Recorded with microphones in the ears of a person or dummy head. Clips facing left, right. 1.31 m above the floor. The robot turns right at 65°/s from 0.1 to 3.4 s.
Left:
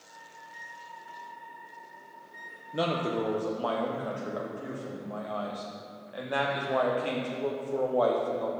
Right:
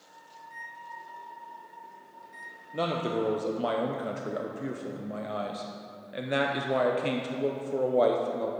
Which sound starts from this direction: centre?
A microwave, at 0.4 s.